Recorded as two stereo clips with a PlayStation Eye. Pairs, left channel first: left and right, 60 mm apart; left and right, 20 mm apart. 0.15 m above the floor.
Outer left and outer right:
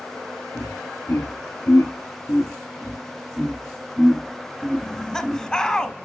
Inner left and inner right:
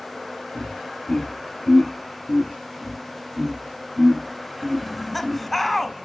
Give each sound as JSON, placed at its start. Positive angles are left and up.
{"t": 0.6, "sound": "laughter", "side_deg": 50, "distance_m": 2.5}
{"t": 2.8, "sound": "laughter", "side_deg": 20, "distance_m": 6.0}
{"t": 4.8, "sound": "laughter", "side_deg": 15, "distance_m": 1.1}